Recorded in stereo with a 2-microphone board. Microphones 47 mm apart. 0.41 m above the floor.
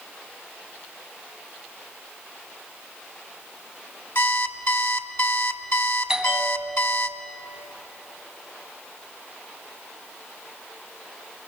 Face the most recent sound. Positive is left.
turn(degrees=-15)  # may be behind; listen again after turning